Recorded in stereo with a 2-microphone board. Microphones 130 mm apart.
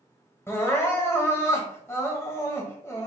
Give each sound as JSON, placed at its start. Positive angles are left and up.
{"t": 0.5, "sound": "crying", "side_deg": 20, "distance_m": 1.1}